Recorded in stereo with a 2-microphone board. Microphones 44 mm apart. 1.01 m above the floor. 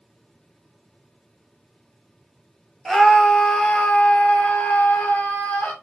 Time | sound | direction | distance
2.9 | a scream | 5° left (ahead or behind) | 0.9 m